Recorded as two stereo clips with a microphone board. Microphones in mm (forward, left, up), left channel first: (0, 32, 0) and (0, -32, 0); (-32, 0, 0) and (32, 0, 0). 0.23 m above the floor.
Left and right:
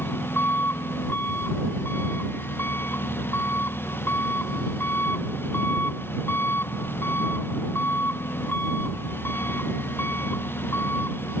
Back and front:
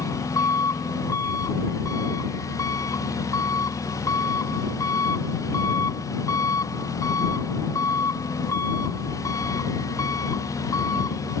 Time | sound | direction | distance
0.0 | an engine running | 150° left | ?